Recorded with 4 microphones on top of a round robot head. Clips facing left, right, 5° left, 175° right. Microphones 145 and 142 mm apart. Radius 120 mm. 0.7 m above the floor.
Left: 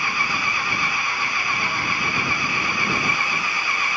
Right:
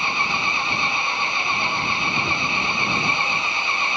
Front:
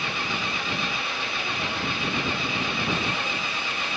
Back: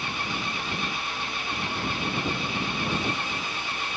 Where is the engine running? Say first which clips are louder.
Right 1 dB, front 2 dB; 25° right.